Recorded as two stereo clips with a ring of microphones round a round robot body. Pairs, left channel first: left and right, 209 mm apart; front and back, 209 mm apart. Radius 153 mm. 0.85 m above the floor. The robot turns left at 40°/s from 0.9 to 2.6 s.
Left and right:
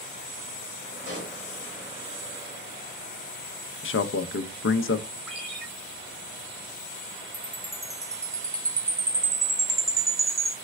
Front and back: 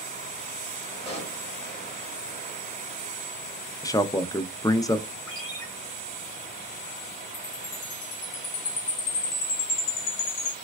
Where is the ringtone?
5° right, 2.5 m.